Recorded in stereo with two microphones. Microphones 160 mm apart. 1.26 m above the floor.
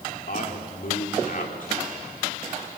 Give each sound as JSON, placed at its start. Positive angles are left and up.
{"t": 0.3, "sound": "a man speaking", "side_deg": 60, "distance_m": 4.0}